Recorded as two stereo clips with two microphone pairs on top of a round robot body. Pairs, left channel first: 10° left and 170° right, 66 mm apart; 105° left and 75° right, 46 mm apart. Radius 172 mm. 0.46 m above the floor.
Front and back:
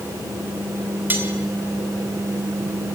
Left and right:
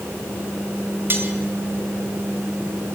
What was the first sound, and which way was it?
Cutlery clinking, 110° right.